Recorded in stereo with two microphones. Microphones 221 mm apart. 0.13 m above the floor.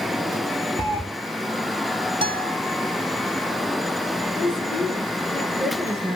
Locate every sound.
0.8 s a cat meowing: 25° left (ahead or behind), 1.4 m
2.2 s a guitar: 25° right (ahead or behind), 0.7 m
4.4 s a woman speaking: 5° left (ahead or behind), 2.5 m